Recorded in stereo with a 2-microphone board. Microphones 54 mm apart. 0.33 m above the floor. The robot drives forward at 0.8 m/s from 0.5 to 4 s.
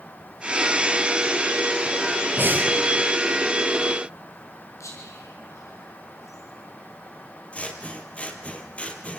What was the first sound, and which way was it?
Breathing, 40° right (ahead or behind).